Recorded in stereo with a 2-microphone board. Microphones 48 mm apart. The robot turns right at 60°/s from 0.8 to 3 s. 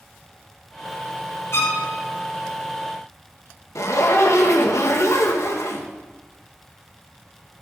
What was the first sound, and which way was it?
A violin, 65° left (ahead or behind).